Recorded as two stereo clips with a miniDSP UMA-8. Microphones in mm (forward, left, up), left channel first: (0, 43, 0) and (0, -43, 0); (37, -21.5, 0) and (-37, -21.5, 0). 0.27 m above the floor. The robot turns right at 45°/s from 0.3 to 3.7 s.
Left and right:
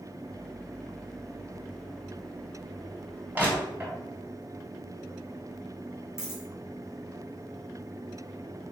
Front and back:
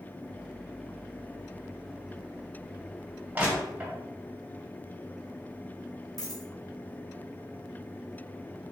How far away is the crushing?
About 1.5 m.